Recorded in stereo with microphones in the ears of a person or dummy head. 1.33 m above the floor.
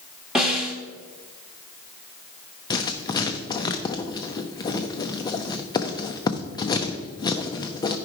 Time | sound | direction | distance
0.3 | a snare drum | centre (ahead or behind) | 1.5 m
2.7 | writing | 25° left (ahead or behind) | 0.6 m